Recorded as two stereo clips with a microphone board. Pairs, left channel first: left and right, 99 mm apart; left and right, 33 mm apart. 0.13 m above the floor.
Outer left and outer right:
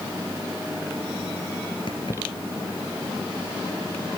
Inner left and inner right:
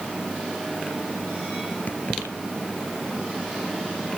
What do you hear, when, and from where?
1.9 s keys jangling: 55° left (ahead or behind), 1.8 m